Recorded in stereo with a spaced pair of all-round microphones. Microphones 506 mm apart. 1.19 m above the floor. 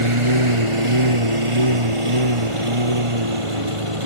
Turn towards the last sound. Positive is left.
turn(degrees=-80)